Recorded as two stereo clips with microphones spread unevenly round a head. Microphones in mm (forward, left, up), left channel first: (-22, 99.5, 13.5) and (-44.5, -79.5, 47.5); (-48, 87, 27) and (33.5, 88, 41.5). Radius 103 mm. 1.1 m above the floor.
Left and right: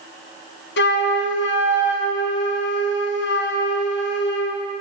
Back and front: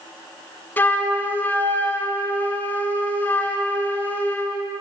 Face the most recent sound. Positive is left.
turn(degrees=110)